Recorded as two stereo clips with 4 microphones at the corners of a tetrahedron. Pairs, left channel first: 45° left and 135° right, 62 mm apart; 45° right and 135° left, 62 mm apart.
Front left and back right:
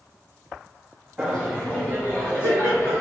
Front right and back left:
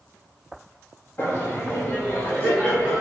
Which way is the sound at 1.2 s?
50° right.